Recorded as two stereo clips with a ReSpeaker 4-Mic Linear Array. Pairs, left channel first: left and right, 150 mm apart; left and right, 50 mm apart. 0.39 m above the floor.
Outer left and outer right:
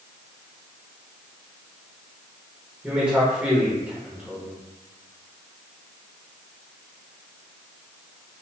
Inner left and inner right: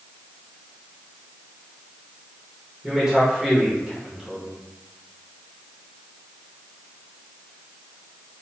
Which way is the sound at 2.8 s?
10° right (ahead or behind).